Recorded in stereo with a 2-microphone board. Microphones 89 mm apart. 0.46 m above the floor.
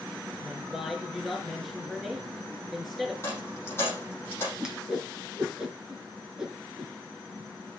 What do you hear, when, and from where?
0.4 s a woman speaking: centre (ahead or behind), 6 m
3.2 s a dropped coin: 30° left (ahead or behind), 8.5 m
4.6 s a whoosh: 5° right (ahead or behind), 3.5 m